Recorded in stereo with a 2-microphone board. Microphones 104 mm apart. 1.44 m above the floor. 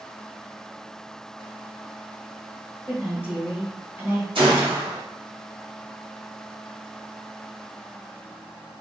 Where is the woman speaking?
15° right (ahead or behind), 1.0 m.